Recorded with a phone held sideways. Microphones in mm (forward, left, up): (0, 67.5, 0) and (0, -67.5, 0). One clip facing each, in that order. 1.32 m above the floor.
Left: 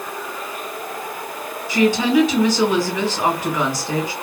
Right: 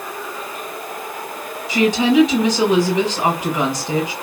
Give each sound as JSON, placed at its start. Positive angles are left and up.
{"t": 1.7, "sound": "a woman speaking", "side_deg": -15, "distance_m": 2.0}